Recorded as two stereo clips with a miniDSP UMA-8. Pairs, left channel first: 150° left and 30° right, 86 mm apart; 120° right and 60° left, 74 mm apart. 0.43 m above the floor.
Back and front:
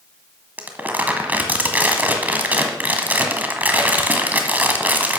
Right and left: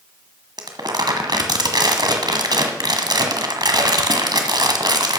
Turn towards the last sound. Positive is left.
turn(degrees=40)